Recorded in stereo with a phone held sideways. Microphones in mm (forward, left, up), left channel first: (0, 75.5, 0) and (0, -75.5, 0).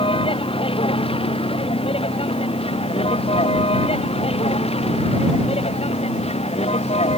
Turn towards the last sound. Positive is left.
turn(degrees=40)  # may be behind; listen again after turning